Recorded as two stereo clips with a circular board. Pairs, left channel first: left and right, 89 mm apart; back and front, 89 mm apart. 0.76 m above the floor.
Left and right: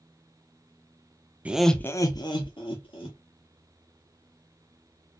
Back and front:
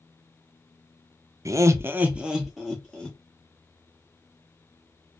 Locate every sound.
1.4 s laughter: 25° right, 0.5 m; by 3.2 s 95° left, 1.4 m